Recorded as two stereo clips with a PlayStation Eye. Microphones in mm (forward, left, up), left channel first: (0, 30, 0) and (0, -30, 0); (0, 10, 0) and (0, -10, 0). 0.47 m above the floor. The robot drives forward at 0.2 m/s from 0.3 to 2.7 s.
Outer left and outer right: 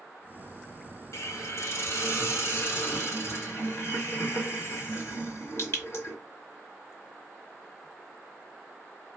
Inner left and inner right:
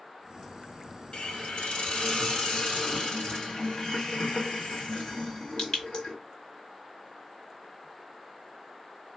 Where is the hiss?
65° left (ahead or behind), 1.1 m; by 6.2 s 50° left (ahead or behind), 1.2 m.